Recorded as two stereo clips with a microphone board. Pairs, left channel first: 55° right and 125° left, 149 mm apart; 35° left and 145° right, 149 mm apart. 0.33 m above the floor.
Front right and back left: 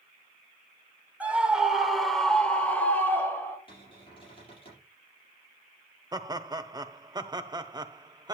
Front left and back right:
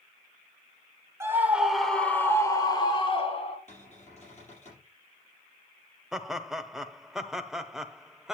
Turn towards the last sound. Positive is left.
turn(degrees=130)